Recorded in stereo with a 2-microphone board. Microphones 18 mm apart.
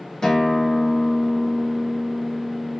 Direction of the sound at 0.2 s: 40° left (ahead or behind).